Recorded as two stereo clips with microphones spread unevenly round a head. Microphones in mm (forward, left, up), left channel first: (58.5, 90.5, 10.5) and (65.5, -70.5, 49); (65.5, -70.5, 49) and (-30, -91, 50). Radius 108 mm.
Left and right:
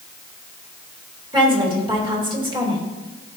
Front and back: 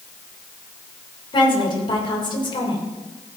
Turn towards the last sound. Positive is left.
turn(degrees=-25)